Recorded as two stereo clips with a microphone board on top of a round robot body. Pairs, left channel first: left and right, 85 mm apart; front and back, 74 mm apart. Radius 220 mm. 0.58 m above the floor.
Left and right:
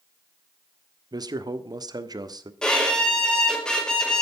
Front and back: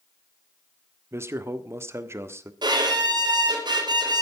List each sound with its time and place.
1.1 s a man speaking: 125° right, 1.4 m
2.6 s a violin: 170° left, 4.5 m